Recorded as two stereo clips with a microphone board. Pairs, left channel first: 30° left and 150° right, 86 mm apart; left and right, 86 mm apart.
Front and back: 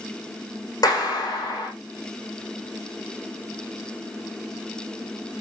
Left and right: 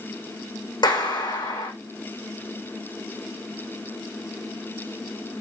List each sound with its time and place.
0.8 s a clap: 65° left, 6.5 m